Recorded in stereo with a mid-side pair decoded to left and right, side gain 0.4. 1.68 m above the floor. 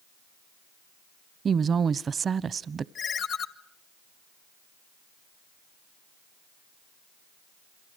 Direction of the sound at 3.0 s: 65° left.